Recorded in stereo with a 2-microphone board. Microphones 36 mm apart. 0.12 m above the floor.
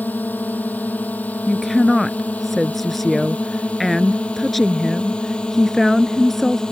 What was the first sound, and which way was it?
A drone, 60° left (ahead or behind).